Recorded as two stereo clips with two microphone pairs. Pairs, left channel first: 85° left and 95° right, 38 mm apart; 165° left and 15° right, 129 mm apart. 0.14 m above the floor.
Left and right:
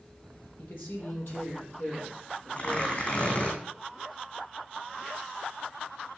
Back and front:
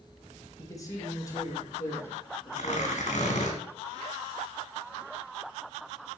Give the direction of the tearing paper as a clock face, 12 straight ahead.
7 o'clock.